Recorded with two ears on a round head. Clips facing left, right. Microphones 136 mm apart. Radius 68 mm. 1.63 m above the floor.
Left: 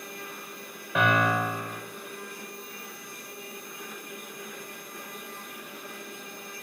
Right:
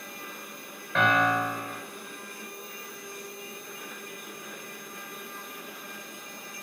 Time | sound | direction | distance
0.9 | a piano | 5° left (ahead or behind) | 0.5 m